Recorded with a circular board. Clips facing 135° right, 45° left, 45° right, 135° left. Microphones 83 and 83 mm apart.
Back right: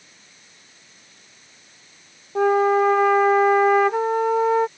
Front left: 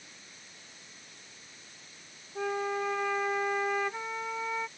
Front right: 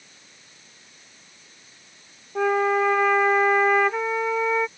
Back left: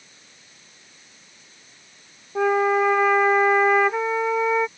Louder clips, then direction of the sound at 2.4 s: Back right 15 dB, back left 2 dB; 140° right.